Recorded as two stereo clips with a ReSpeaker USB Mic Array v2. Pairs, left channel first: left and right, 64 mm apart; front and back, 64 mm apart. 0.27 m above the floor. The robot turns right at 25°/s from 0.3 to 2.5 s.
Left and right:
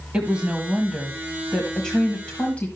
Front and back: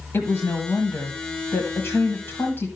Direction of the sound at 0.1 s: 25° right.